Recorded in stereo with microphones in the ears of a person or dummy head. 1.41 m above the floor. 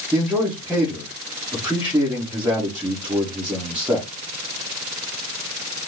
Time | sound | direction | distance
0.1 | a man speaking | 10° right (ahead or behind) | 1.6 m